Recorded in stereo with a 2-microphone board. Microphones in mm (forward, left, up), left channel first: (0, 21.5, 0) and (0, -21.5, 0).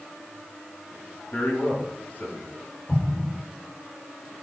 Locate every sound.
1.3 s a man speaking: 55° left (ahead or behind), 2.5 m
2.9 s an explosion: 35° left (ahead or behind), 1.6 m